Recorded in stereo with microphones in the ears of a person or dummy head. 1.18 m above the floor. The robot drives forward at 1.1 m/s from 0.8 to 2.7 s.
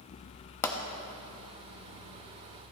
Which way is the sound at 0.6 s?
15° left (ahead or behind).